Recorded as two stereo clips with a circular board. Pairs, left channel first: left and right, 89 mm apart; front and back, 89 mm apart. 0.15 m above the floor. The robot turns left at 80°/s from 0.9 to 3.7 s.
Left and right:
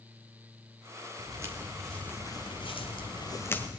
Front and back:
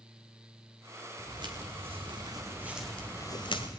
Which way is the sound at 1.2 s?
125° right.